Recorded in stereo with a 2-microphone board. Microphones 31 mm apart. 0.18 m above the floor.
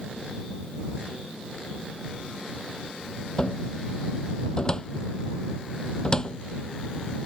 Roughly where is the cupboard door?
Left.